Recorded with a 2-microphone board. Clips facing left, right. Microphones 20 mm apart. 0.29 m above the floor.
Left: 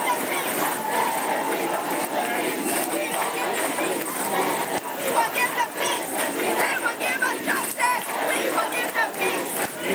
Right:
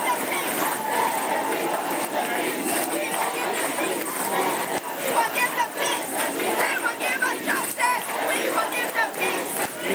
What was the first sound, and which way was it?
Only background noise.